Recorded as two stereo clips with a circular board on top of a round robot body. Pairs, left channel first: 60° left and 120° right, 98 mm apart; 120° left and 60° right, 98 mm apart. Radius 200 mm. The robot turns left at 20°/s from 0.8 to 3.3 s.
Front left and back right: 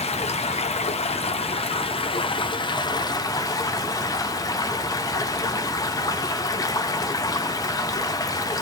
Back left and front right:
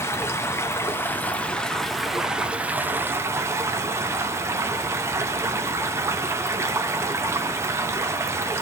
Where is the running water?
55° left, 0.8 m; by 8.6 s 5° left, 0.8 m.